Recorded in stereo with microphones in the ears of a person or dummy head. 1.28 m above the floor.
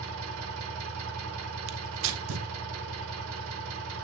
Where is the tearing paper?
75° right (ahead or behind), 0.9 m.